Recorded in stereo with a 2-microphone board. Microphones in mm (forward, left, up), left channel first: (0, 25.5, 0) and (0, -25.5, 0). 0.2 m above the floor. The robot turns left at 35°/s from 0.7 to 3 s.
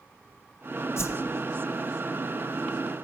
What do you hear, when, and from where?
1.0 s a whoosh: 60° left (ahead or behind), 1.1 m